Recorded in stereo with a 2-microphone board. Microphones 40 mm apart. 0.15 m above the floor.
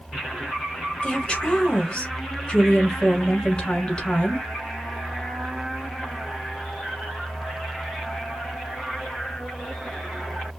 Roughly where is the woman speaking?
Left.